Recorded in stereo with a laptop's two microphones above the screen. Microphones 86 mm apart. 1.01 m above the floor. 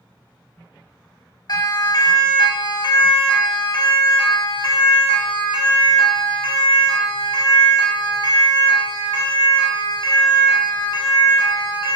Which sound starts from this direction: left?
A siren, at 1.5 s.